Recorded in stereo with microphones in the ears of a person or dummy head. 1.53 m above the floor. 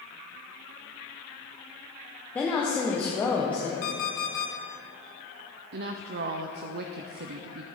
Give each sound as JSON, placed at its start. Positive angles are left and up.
{"t": 2.4, "sound": "a woman speaking", "side_deg": 10, "distance_m": 0.9}
{"t": 3.8, "sound": "an alarm clock", "side_deg": 45, "distance_m": 1.0}
{"t": 5.7, "sound": "a woman speaking", "side_deg": -55, "distance_m": 0.5}